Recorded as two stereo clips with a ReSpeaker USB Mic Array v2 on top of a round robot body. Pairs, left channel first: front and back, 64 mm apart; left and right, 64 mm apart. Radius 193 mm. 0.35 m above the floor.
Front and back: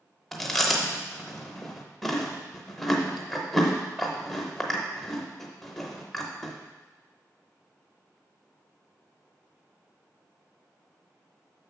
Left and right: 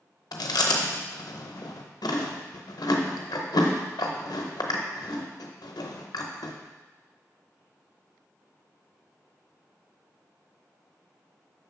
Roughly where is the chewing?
Left.